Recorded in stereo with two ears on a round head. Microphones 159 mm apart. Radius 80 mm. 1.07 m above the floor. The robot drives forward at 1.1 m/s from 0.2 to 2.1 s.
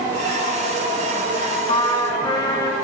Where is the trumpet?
30° left (ahead or behind), 2.5 m; by 2.7 s 25° left (ahead or behind), 3 m.